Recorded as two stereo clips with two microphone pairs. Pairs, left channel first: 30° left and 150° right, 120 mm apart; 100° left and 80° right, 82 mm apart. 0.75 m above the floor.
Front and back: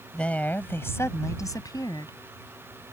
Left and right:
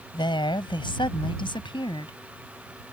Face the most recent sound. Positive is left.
turn(degrees=85)